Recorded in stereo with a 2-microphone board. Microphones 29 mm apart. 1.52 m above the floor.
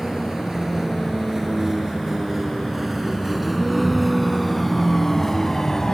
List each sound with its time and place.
0.0 s a vehicle: 15° right (ahead or behind); by 6.0 s 15° left (ahead or behind)